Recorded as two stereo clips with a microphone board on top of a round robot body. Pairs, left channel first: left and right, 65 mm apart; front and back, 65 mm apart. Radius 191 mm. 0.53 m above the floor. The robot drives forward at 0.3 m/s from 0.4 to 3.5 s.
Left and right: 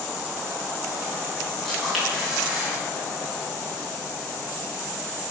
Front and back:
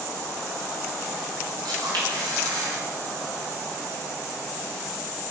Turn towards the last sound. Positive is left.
turn(degrees=175)